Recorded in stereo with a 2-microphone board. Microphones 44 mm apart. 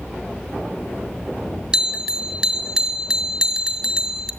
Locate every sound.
1.7 s a bell: 20° right (ahead or behind), 1.8 m